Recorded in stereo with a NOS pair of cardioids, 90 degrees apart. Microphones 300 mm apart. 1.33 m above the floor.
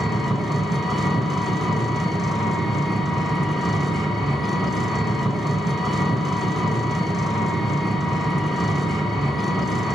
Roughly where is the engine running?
Ahead.